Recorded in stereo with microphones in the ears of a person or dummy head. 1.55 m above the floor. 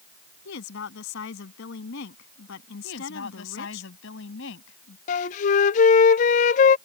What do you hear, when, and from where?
0.5 s a woman speaking: 70° left (ahead or behind)
2.8 s a woman speaking: 75° left (ahead or behind)
5.1 s a flute: 45° left (ahead or behind)